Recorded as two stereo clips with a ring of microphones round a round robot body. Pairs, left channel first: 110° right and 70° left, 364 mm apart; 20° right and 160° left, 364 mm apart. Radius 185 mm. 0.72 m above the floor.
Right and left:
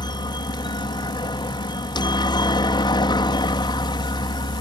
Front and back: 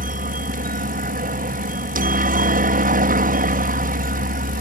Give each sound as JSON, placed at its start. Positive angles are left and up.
{"t": 0.0, "sound": "a helicopter", "azimuth_deg": -175}